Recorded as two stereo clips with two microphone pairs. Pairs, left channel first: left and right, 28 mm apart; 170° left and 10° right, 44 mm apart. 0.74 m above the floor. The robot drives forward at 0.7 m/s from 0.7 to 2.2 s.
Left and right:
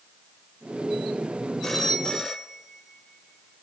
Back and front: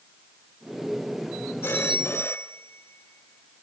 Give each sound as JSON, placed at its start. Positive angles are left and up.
{"t": 1.6, "sound": "a phone ringing", "azimuth_deg": 180, "distance_m": 1.7}